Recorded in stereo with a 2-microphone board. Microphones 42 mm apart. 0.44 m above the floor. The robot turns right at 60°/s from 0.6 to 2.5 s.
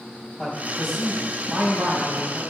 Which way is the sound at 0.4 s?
155° left.